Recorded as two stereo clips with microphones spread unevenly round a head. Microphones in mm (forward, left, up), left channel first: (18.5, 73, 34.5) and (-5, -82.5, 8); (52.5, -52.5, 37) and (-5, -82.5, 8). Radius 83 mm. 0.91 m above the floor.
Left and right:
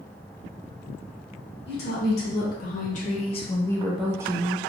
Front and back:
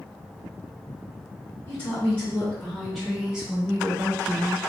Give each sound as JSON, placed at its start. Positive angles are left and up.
{"t": 1.7, "sound": "a woman speaking", "azimuth_deg": 110, "distance_m": 1.4}